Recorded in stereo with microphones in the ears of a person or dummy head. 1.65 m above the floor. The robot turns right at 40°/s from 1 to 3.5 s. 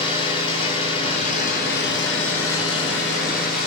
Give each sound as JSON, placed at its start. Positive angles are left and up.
{"t": 0.0, "sound": "an engine running", "azimuth_deg": 30, "distance_m": 9.0}